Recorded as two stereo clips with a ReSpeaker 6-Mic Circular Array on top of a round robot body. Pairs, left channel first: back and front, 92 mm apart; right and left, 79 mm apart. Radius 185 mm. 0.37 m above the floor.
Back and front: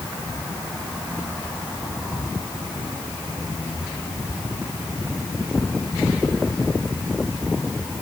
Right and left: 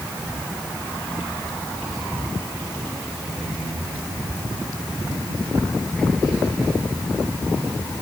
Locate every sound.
Only background noise.